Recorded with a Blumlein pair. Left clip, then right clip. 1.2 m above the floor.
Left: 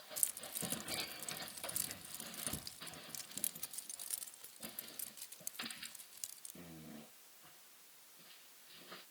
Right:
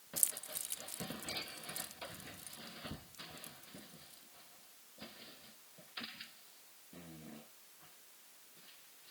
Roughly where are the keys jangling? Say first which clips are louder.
Right 3 dB; ahead.